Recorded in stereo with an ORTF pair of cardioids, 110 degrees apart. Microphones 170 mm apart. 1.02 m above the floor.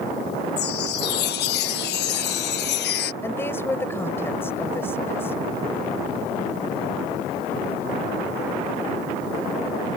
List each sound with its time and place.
0.6 s a chime: 70° left
3.2 s a woman speaking: 10° left